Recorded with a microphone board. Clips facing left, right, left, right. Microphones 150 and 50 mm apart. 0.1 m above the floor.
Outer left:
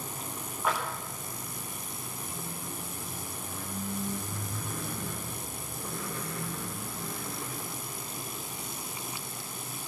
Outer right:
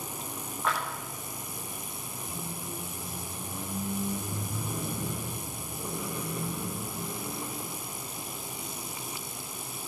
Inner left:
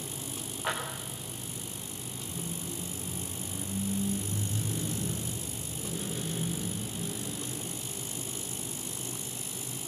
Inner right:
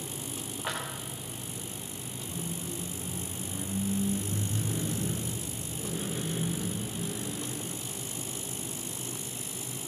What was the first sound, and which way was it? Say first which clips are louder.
A clap: outer left 1 dB, inner left 2 dB; 5° left (ahead or behind).